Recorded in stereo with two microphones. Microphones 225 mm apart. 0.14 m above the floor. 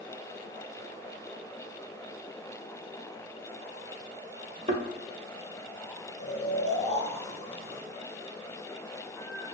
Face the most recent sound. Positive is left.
turn(degrees=25)  # may be behind; listen again after turning